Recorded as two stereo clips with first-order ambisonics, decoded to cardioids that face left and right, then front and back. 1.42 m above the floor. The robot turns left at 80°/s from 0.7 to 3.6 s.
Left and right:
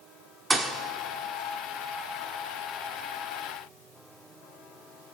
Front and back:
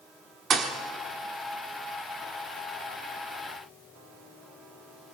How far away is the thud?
About 1.1 m.